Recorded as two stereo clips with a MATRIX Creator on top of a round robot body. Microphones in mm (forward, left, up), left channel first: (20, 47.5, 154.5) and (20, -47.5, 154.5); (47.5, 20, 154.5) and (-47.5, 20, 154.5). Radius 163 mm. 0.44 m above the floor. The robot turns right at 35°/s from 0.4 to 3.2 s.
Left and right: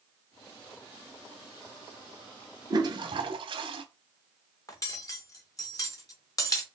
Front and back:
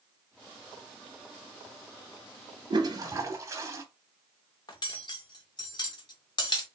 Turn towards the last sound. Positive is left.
turn(degrees=40)